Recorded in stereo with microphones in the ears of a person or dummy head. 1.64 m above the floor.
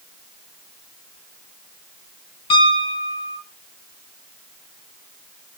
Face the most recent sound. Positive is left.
turn(degrees=30)  # may be behind; listen again after turning